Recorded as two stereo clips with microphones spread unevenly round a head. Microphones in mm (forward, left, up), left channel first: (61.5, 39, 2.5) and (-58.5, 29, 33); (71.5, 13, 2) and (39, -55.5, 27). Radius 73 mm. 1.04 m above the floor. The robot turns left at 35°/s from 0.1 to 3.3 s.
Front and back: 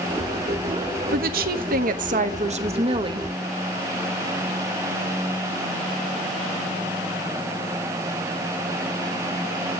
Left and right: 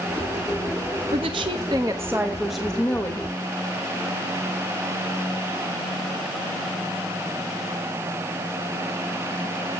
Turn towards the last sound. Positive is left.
turn(degrees=125)